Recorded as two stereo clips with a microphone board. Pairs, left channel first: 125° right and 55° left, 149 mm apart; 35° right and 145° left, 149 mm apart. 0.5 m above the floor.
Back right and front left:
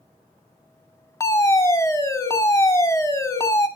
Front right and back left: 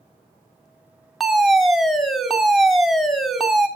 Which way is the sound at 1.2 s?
125° right.